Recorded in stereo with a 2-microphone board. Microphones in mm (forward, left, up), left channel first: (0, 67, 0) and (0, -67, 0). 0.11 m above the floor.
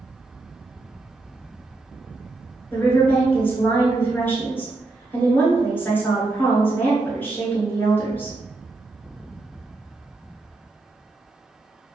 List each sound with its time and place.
2.7 s a woman speaking: 15° left (ahead or behind), 1.1 m